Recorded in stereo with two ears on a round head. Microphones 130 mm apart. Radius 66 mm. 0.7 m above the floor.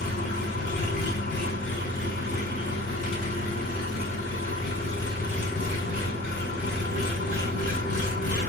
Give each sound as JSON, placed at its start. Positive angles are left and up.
{"t": 0.0, "sound": "an engine running", "side_deg": 70, "distance_m": 6.5}